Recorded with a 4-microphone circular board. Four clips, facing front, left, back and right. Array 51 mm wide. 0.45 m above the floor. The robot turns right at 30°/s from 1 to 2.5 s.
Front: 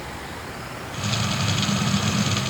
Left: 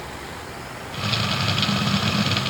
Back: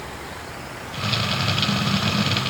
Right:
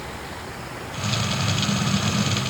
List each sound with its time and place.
Only background noise.